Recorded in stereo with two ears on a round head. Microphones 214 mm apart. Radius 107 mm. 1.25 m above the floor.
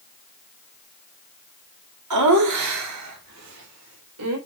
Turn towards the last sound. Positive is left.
turn(degrees=-70)  # may be behind; listen again after turning